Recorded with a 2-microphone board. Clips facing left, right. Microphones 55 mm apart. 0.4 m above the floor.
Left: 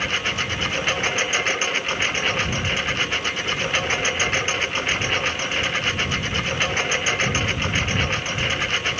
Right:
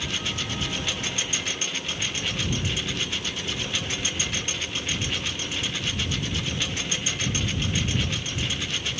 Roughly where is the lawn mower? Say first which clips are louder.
Left 7 dB; left.